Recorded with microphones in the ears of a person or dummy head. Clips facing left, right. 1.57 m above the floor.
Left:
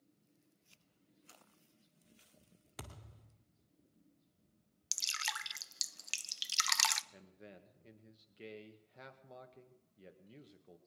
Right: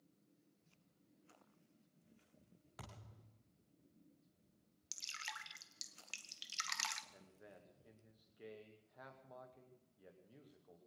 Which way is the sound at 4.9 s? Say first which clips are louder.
Left 8 dB; 65° left (ahead or behind).